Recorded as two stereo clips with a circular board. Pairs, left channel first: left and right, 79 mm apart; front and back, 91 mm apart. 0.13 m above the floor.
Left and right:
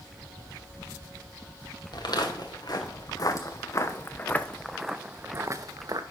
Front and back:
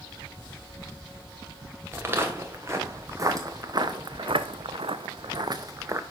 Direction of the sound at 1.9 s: 115° left.